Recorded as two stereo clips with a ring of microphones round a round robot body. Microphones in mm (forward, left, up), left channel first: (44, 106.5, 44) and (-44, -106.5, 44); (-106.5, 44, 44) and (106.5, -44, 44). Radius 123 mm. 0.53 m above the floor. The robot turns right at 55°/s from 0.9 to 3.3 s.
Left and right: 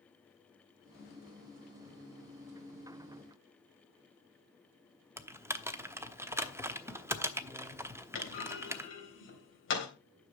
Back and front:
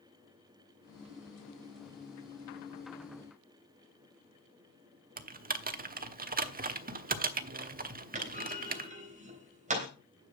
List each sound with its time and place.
5.2 s typing on a keyboard: 40° right, 1.0 m
8.2 s a clunk: 35° left, 3.5 m